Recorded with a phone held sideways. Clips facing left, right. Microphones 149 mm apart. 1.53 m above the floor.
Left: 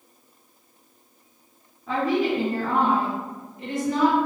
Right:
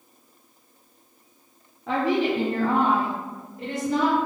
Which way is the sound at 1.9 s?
75° right (ahead or behind).